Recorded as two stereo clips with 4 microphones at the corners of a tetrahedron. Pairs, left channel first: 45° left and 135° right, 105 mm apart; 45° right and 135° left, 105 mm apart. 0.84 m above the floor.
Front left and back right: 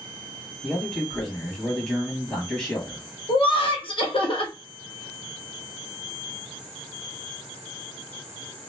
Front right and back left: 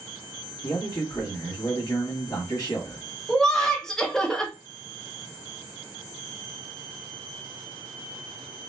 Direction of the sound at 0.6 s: 35° right.